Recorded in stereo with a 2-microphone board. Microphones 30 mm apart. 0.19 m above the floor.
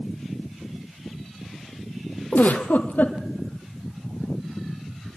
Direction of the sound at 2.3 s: 80° left.